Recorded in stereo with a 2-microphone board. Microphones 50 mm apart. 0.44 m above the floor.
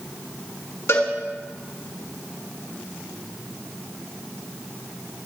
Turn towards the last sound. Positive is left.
turn(degrees=70)  # may be behind; listen again after turning